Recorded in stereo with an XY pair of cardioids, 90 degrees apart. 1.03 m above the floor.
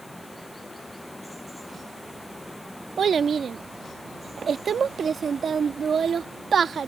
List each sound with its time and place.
0.0 s running water: straight ahead
3.0 s a child speaking: 55° right